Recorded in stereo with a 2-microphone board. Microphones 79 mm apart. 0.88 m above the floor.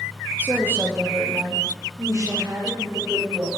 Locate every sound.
0.4 s a woman speaking: 20° right (ahead or behind), 0.8 m; by 3.5 s 50° right (ahead or behind), 2.5 m